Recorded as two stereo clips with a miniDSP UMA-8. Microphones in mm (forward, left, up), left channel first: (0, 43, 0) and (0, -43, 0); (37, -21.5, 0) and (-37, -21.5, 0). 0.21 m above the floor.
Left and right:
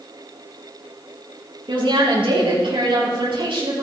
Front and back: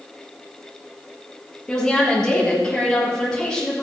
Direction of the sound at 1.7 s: 80° right.